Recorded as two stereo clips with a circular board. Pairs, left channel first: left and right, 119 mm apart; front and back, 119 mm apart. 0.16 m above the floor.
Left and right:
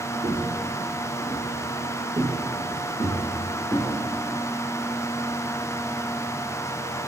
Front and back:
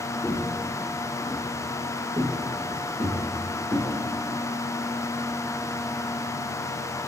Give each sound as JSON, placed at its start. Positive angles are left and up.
{"t": 0.2, "sound": "footsteps", "azimuth_deg": -85, "distance_m": 2.0}